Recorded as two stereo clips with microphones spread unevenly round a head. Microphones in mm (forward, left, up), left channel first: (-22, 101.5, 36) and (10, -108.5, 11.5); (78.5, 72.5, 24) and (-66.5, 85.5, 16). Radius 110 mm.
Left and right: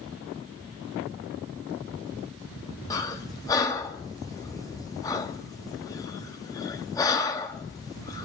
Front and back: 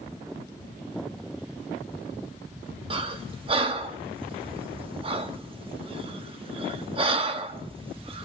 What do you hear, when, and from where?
2.9 s breathing: 150° left, 0.7 m